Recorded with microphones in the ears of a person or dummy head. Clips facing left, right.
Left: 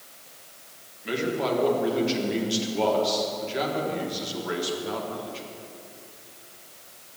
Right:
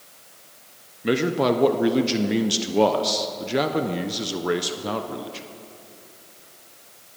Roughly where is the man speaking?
Right.